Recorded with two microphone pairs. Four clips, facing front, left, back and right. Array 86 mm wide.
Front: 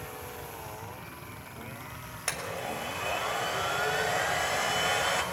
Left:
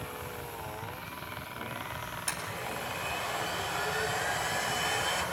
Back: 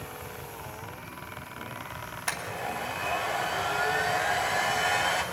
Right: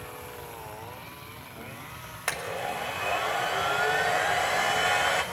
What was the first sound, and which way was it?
A blender, 85° right.